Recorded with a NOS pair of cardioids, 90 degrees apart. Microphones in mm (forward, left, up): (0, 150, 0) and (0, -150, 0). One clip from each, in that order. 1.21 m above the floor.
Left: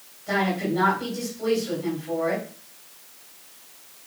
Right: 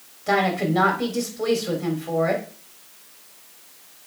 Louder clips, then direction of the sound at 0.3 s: Right 4 dB; 65° right.